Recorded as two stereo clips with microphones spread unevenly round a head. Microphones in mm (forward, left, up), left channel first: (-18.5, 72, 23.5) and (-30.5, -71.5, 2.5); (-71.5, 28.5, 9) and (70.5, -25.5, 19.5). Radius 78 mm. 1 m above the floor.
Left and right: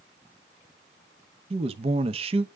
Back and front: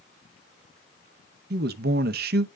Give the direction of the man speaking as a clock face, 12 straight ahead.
2 o'clock.